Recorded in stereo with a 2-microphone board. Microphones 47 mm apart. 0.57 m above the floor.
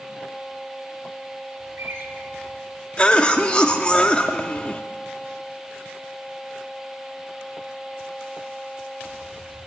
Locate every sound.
1.6 s a bird: 60° right (ahead or behind), 2.0 m
3.0 s a cough: 20° left (ahead or behind), 0.8 m